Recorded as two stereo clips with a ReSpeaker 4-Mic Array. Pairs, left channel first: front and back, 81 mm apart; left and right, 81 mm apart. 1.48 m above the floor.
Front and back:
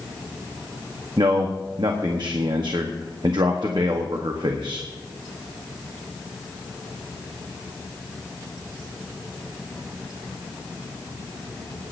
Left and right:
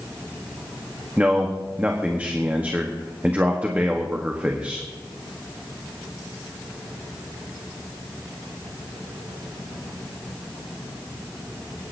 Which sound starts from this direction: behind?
A man speaking, at 1.2 s.